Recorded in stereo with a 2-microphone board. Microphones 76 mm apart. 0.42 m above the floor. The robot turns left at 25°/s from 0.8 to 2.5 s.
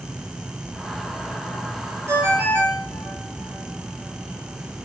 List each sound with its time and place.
2.1 s a ringtone: 35° right (ahead or behind), 4 m; by 4.8 s 25° right (ahead or behind), 4 m